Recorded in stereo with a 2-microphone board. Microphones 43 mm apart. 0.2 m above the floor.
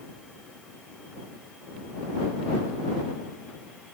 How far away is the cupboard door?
No cupboard door in this recording.